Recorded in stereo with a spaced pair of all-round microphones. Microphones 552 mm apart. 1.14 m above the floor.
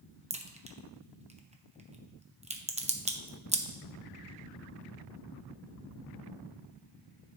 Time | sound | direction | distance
0.3 | a crack | 15° right (ahead or behind) | 0.6 m